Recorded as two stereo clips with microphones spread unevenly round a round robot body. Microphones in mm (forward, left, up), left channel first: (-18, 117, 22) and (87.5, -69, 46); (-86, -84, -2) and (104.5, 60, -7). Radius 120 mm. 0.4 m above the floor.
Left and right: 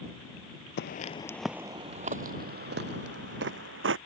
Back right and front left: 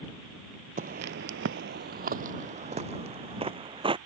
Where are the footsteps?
90° left; by 4.0 s 35° right.